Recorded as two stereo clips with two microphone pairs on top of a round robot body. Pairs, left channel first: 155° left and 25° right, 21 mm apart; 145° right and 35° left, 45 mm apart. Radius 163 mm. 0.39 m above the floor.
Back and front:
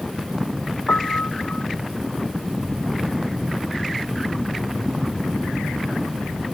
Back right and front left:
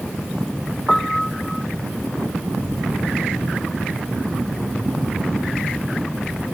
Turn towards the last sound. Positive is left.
turn(degrees=135)